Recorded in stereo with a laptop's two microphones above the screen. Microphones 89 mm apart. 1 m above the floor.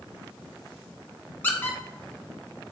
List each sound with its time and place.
1.4 s a squeak: 20° left (ahead or behind), 0.6 m